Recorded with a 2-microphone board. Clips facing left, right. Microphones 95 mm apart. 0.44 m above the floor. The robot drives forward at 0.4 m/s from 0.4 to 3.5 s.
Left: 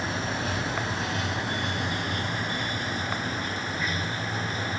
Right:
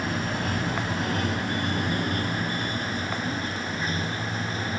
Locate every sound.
0.0 s running water: 55° right (ahead or behind); by 4.8 s 40° right (ahead or behind)